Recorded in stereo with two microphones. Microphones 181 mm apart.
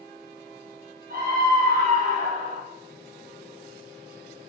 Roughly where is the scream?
Right.